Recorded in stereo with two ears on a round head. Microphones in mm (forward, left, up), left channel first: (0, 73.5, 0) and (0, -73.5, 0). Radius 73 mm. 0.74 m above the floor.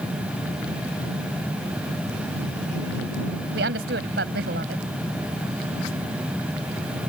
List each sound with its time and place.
3.5 s a woman speaking: 75° right (ahead or behind)